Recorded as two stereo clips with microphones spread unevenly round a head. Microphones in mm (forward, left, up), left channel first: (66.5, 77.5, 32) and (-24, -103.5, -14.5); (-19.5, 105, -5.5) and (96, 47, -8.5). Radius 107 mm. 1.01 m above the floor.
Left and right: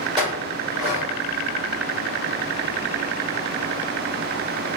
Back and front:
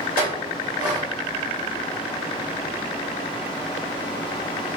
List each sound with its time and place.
0.2 s a clink: 175° left, 2 m